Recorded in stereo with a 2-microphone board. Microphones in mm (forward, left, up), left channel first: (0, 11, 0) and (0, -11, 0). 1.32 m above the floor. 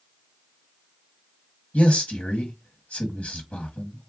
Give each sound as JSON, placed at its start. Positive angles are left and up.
{"t": 1.7, "sound": "a man speaking", "side_deg": 75, "distance_m": 1.3}